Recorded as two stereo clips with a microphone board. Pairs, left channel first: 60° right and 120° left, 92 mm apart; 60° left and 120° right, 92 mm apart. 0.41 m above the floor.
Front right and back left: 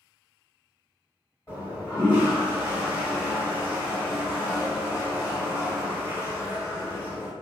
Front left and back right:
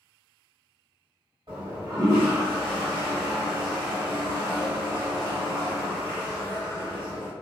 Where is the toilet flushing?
115° right, 1.9 m.